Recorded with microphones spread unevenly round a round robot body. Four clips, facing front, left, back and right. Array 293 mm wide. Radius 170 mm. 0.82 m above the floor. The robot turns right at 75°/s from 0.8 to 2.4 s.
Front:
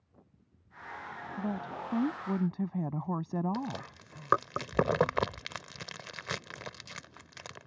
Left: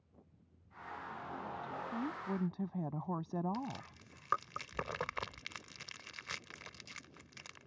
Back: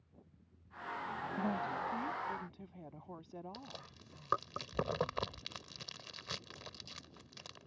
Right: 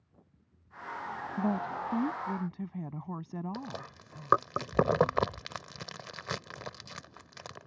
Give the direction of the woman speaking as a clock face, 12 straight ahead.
3 o'clock.